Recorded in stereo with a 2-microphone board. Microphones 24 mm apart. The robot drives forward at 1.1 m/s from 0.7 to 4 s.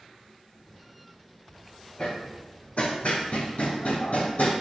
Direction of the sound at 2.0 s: 55° left (ahead or behind).